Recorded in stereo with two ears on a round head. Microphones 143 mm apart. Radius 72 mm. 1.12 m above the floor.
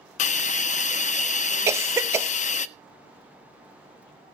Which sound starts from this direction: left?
A hiss, at 0.2 s.